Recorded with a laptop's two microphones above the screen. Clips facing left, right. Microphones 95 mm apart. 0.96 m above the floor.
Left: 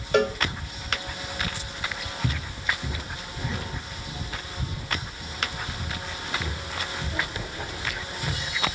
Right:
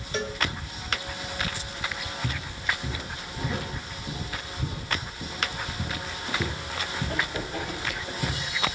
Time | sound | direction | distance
0.1 | a cowbell | 60° left (ahead or behind) | 0.7 m
2.2 | footsteps | 25° left (ahead or behind) | 2 m